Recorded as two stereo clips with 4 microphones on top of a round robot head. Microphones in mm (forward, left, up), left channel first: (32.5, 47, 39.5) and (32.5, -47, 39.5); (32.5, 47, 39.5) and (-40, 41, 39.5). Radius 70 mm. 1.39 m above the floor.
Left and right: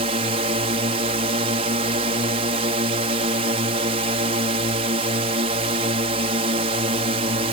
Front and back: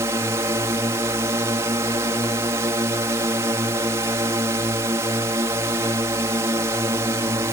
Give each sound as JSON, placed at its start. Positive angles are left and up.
{"t": 0.0, "sound": "a drone", "azimuth_deg": -115}